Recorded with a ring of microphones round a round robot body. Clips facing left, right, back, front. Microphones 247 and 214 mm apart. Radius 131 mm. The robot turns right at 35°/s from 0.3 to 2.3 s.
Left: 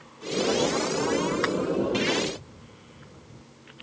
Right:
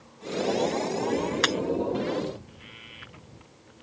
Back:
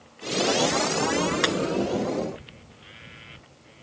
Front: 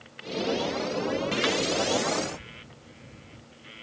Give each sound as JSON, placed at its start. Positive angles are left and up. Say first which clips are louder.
{"t": 1.4, "sound": "breaking glass", "louder": "left 1 dB, back 1 dB", "azimuth_deg": -135}